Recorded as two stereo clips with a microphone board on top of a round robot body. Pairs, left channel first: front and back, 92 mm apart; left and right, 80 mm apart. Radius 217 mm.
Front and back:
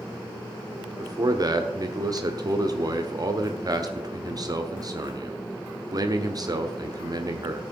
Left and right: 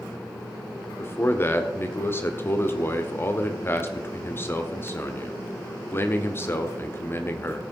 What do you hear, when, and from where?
1.0 s a man speaking: 145° left, 1.5 m